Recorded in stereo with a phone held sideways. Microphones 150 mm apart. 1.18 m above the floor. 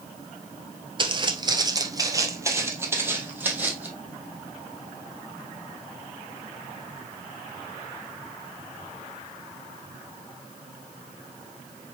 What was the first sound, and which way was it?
Footsteps, 35° right (ahead or behind).